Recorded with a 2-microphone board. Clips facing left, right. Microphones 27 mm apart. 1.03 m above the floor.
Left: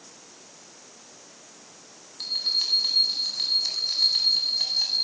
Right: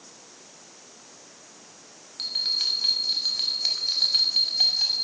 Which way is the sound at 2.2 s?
80° right.